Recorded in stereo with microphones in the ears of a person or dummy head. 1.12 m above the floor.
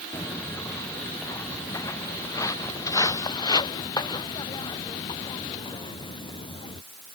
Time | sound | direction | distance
0.1 | footsteps | 10° left (ahead or behind) | ?